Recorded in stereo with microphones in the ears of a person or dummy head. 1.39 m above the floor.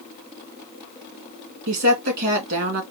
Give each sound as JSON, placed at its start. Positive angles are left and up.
{"t": 1.7, "sound": "a woman speaking", "side_deg": -70, "distance_m": 2.0}